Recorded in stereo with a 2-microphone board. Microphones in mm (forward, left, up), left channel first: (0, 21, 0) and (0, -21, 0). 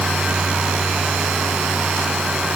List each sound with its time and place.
Only background noise.